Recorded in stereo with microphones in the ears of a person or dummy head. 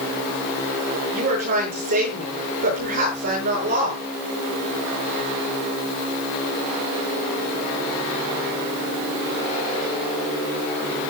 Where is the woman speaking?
50° right (ahead or behind), 7.5 m.